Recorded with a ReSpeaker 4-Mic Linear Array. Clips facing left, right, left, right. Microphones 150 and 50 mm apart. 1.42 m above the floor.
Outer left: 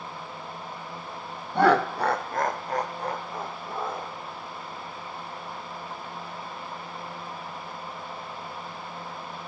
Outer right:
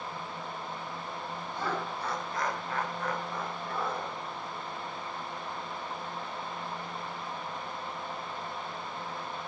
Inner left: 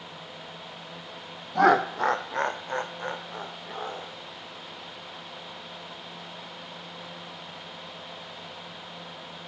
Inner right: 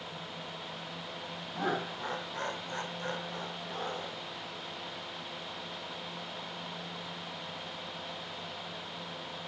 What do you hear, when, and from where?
1.6 s laughter: 65° left (ahead or behind), 0.6 m; by 4.2 s 20° left (ahead or behind), 2 m